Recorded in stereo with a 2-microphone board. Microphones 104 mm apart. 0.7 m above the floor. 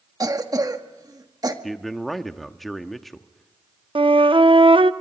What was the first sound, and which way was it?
A cough, 40° right (ahead or behind).